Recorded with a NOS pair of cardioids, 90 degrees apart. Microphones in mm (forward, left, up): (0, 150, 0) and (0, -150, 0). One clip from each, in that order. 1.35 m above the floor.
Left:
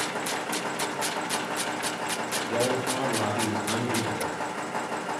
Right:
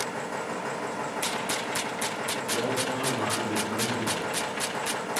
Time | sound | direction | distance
0.0 | a machine running | 25° left | 1.3 m
2.5 | a man speaking | 55° left | 2 m